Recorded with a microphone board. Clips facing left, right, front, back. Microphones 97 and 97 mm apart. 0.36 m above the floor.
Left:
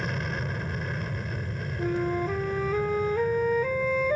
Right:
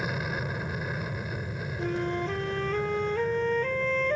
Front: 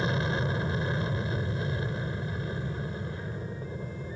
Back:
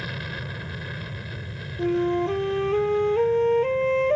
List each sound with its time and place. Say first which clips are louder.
0.0 s an aircraft: even, front 5 dB; 15° right
1.8 s a flute: left 3 dB, back 13 dB; 175° left